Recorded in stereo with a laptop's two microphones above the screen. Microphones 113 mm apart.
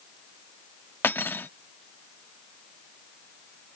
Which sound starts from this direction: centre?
Cutlery clinking, at 1.0 s.